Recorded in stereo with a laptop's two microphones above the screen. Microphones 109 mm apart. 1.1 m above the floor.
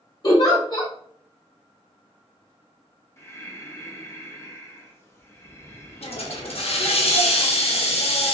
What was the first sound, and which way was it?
A giggle, 40° left (ahead or behind).